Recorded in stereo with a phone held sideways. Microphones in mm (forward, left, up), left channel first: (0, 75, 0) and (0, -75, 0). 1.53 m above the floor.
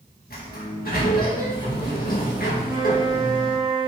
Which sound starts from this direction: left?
A sliding door, at 0.3 s.